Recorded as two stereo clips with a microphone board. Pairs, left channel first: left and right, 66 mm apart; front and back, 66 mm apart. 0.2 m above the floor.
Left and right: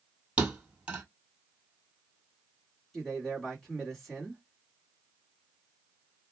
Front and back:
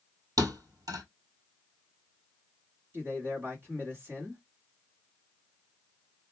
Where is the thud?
165° right, 1.4 m.